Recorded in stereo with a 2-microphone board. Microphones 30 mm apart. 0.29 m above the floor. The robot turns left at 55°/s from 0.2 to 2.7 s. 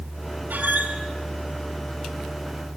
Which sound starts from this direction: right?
A squeak, at 0.5 s.